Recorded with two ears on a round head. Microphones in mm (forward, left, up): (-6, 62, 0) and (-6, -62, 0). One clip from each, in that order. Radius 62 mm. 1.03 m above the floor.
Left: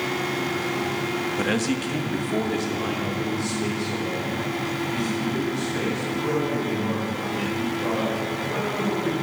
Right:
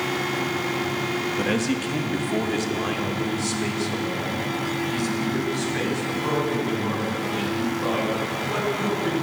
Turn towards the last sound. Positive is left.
turn(degrees=-35)  # may be behind; listen again after turning